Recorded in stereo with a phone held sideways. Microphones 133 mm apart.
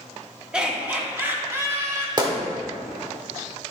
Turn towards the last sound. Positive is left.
turn(degrees=-35)  # may be behind; listen again after turning